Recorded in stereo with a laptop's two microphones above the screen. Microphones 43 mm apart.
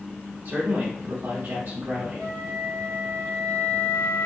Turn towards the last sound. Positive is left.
turn(degrees=70)  # may be behind; listen again after turning